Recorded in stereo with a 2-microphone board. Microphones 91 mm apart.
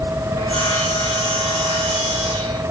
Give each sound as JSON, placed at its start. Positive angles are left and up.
{"t": 0.4, "sound": "sawing", "side_deg": -80, "distance_m": 7.0}